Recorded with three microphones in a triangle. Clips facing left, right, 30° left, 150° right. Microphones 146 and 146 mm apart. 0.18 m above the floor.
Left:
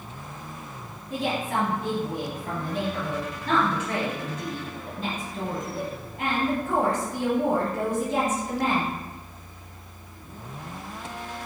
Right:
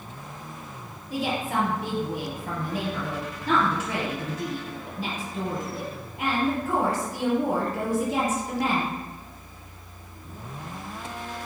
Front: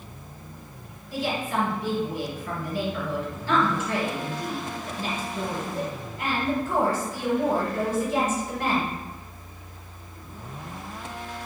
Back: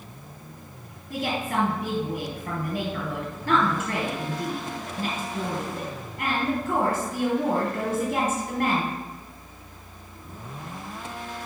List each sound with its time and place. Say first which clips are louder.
1.1 s a woman speaking: even, even; straight behind, 3.5 m